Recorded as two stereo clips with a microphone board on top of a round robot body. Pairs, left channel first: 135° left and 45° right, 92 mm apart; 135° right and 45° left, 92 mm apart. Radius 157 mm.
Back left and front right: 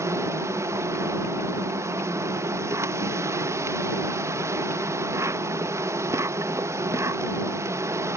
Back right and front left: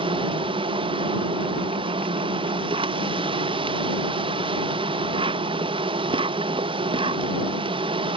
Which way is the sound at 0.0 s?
15° left.